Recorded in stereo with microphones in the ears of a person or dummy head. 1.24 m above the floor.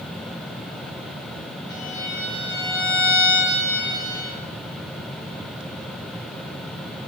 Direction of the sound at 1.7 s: 85° right.